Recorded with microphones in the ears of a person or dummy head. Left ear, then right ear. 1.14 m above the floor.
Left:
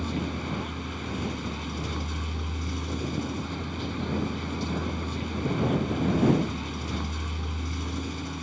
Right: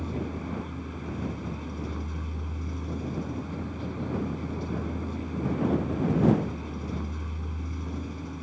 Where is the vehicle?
25° left (ahead or behind).